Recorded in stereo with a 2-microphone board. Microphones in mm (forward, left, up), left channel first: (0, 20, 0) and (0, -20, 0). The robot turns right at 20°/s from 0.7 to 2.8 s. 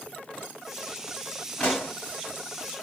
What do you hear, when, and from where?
1.6 s a pop: 30° left (ahead or behind), 1.5 m; by 1.9 s 25° left (ahead or behind), 1.5 m